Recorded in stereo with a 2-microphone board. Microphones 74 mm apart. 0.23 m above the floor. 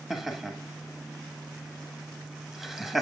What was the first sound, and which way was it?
Laughter, 5° right (ahead or behind).